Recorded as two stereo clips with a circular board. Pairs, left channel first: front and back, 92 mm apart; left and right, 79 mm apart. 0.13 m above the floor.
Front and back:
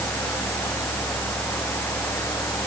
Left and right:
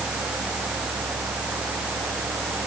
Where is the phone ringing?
I don't hear a phone ringing.